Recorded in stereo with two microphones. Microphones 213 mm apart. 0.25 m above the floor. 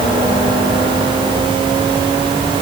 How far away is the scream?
No scream in this recording.